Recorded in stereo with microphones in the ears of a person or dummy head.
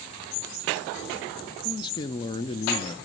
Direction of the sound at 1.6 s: 25° left (ahead or behind).